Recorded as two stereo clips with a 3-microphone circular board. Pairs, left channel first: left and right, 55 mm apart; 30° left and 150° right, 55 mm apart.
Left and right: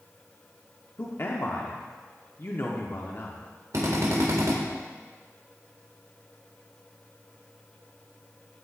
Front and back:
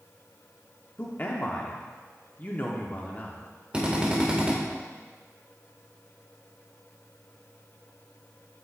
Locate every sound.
1.0 s a man speaking: 75° left, 1.1 m
3.7 s a drill: 80° right, 1.8 m